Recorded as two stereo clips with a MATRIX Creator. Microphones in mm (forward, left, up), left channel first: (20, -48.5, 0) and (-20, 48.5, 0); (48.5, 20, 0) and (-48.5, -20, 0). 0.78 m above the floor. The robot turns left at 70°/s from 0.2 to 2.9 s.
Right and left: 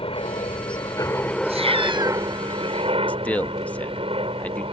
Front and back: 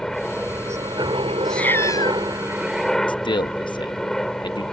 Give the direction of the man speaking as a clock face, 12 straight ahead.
12 o'clock.